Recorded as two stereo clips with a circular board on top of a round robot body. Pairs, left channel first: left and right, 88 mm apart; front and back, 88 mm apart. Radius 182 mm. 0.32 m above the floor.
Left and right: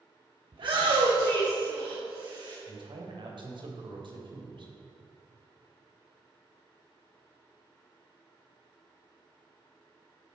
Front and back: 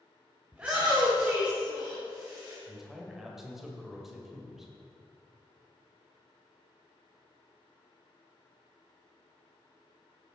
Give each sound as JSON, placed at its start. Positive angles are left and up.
{"t": 0.5, "sound": "a shout", "azimuth_deg": -105, "distance_m": 2.0}
{"t": 2.7, "sound": "a man speaking", "azimuth_deg": -95, "distance_m": 2.5}